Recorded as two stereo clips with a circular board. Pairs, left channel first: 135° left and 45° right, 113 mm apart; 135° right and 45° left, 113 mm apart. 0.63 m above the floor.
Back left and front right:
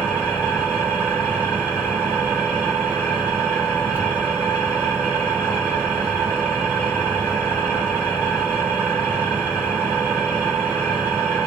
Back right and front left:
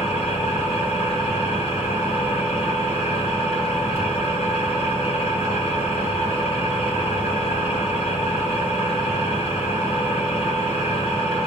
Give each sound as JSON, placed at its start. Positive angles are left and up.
{"t": 0.0, "sound": "an engine running", "azimuth_deg": -120, "distance_m": 2.0}